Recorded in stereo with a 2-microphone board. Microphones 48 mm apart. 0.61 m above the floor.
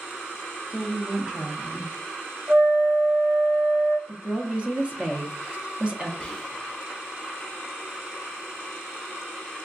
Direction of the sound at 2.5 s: 60° right (ahead or behind).